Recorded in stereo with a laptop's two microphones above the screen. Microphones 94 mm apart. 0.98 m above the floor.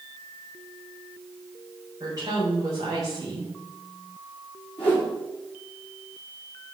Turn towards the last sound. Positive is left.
turn(degrees=15)  # may be behind; listen again after turning